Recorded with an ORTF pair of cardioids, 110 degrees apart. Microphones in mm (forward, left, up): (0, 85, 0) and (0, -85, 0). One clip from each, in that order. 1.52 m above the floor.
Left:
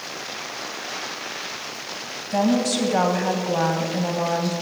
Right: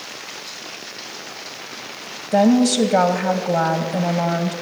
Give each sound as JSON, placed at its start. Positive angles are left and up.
{"t": 2.3, "sound": "a woman speaking", "azimuth_deg": -40, "distance_m": 0.9}